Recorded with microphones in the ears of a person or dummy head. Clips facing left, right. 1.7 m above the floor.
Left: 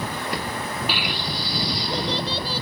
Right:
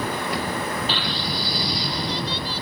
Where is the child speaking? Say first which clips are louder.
Right 1 dB; 15° left (ahead or behind); by 2.6 s 40° left (ahead or behind).